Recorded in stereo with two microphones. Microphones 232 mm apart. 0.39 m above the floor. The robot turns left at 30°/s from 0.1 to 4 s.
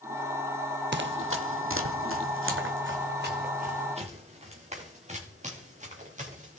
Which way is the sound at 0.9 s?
50° right (ahead or behind).